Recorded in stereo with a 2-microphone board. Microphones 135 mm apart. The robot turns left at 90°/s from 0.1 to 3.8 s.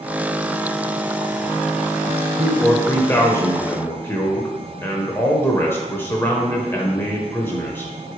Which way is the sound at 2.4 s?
Centre (ahead or behind).